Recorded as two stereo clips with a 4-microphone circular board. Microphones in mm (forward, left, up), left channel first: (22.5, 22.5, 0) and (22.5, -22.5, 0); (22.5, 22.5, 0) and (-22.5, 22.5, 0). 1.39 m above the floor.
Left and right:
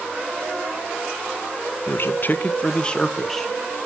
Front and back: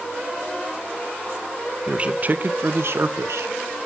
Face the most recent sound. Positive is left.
turn(degrees=175)